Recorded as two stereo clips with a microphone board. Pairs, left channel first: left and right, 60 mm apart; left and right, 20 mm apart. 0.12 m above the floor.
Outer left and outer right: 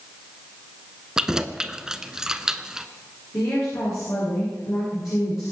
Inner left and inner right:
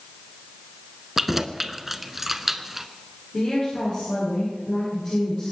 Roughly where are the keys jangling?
Centre.